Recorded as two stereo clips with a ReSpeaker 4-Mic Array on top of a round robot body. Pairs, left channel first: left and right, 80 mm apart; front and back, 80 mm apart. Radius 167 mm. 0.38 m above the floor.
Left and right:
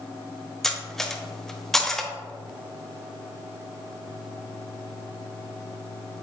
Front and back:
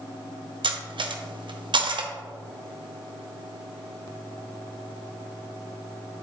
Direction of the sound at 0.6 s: 175° left.